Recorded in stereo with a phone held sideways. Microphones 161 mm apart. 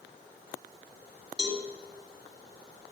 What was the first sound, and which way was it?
A cowbell, 25° right (ahead or behind).